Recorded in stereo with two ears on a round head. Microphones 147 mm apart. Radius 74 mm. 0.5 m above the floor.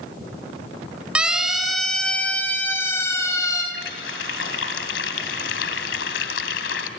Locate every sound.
1.1 s a siren: 5° right (ahead or behind), 4 m; by 3.6 s 20° left (ahead or behind), 6 m
3.7 s a running tap: 80° left, 2.5 m